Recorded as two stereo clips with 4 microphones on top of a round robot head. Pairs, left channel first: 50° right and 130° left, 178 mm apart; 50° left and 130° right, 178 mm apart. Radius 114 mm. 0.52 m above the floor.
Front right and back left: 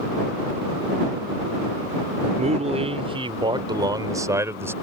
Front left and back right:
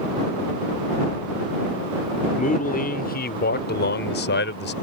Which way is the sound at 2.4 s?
85° left.